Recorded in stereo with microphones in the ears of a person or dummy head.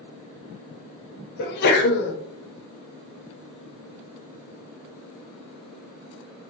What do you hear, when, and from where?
1.4 s a sneeze: 50° left (ahead or behind), 0.5 m